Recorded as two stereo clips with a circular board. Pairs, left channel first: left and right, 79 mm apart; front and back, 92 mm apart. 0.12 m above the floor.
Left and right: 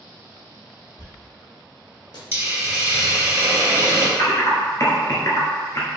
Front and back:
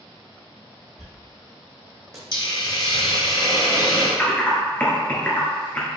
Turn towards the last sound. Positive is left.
turn(degrees=65)